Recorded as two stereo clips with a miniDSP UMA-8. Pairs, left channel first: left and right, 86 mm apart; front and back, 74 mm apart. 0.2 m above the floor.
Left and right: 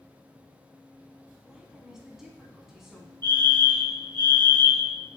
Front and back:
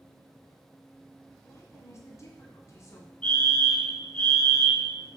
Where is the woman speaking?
5° right, 1.9 m.